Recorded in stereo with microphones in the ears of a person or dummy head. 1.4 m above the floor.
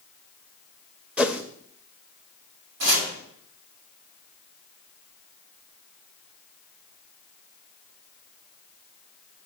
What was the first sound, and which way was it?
A whoosh, 5° right (ahead or behind).